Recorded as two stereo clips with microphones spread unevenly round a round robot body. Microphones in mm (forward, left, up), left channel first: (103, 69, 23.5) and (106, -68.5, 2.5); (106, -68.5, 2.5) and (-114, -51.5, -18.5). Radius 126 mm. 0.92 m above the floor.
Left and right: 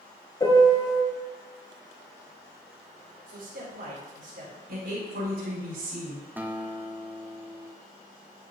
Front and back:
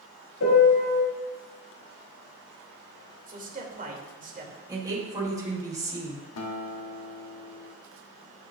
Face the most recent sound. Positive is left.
turn(degrees=-10)